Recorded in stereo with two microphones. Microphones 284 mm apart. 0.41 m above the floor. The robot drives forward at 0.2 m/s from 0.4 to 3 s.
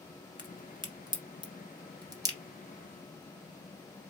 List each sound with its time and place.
0.4 s a crack: 15° right (ahead or behind), 1.1 m